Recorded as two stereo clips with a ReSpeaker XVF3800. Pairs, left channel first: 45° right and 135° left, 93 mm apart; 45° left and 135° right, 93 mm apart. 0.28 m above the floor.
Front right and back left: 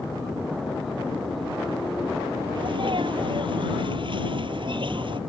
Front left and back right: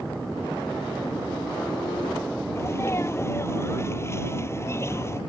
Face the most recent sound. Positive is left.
turn(degrees=105)